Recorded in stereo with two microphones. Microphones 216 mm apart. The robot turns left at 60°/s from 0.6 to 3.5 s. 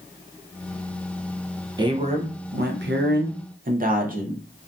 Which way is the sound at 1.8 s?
25° right.